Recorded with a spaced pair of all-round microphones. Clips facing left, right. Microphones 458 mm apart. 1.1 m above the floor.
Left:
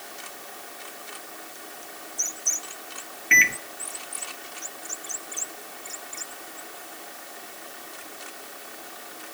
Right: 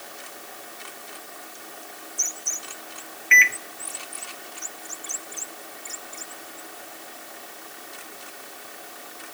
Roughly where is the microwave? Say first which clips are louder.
Left 2 dB; left.